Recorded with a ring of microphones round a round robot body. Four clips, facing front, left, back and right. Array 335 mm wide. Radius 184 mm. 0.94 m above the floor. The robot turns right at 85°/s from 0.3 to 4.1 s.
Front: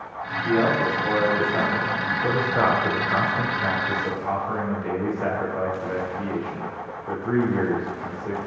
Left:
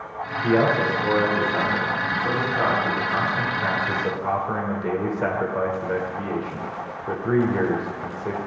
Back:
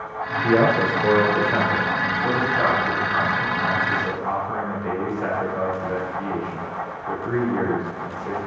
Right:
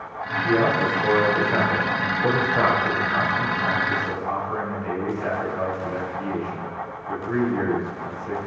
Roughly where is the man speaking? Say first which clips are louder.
Left 1 dB, back 3 dB; behind left.